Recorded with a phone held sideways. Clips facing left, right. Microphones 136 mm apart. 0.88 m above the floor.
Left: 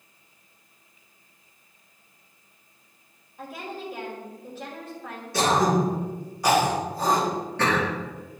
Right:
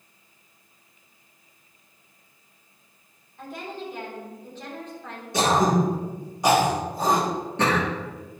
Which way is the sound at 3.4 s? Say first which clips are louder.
Even; 5° left (ahead or behind).